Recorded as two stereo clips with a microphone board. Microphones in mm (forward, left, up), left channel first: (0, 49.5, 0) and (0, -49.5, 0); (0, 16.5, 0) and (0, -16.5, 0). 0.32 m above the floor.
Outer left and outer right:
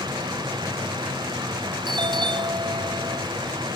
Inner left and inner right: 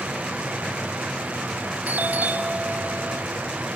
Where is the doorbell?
50° right (ahead or behind), 2 m.